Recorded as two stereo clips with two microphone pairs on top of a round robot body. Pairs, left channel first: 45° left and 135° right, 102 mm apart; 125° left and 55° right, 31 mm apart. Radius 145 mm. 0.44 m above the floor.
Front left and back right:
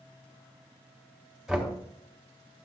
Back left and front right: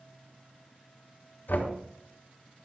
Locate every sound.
1.5 s knocking: 135° left, 1.7 m